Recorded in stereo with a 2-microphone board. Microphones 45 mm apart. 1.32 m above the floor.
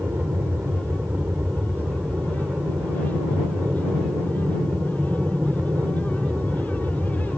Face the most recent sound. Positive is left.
turn(degrees=-60)  # may be behind; listen again after turning